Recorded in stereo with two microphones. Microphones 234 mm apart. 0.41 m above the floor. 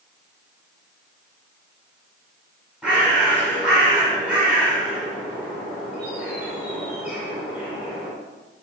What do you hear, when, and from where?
2.8 s a bird: 5° right (ahead or behind), 1.6 m